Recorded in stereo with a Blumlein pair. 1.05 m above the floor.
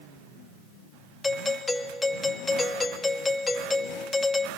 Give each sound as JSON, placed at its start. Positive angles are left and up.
{"t": 1.2, "sound": "a doorbell", "azimuth_deg": 10, "distance_m": 1.9}